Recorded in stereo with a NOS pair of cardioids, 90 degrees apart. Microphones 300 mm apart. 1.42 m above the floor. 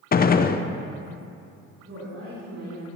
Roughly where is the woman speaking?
Ahead right.